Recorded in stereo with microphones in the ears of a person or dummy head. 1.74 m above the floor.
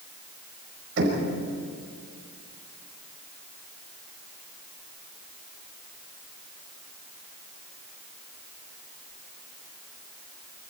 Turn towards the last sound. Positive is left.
turn(degrees=-65)  # may be behind; listen again after turning